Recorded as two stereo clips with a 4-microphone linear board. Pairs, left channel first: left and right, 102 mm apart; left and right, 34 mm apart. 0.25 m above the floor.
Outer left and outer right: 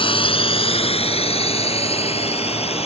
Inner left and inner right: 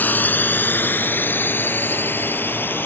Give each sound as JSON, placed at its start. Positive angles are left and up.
{"t": 0.0, "sound": "a drone", "side_deg": 60}